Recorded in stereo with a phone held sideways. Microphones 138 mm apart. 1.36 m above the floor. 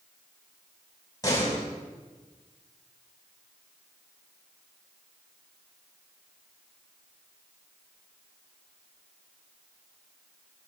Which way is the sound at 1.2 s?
25° left (ahead or behind).